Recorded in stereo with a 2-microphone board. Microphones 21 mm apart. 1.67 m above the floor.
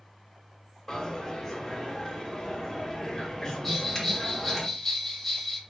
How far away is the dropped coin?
About 1.5 m.